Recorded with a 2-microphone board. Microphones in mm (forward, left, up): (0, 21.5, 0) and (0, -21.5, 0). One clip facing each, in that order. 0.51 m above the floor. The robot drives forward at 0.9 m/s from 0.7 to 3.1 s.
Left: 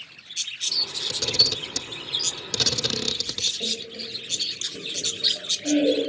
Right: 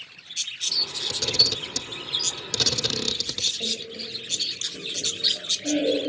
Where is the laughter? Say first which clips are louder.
Even; 10° left (ahead or behind), 3.5 m.